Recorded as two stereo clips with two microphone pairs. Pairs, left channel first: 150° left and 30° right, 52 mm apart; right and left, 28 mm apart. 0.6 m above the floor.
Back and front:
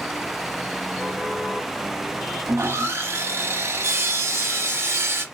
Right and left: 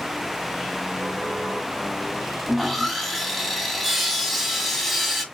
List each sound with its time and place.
2.5 s sawing: straight ahead, 0.7 m